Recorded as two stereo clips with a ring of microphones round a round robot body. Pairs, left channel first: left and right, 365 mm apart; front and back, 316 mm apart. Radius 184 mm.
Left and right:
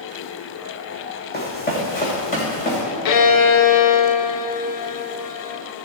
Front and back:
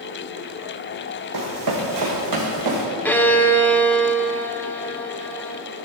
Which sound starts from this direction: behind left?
Running footsteps, at 1.3 s.